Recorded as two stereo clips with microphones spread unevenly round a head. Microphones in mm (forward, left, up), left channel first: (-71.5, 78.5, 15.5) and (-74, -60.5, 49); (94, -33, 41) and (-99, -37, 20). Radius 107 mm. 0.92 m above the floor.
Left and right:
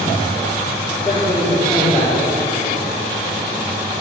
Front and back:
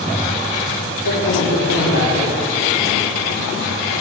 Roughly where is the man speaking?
Ahead.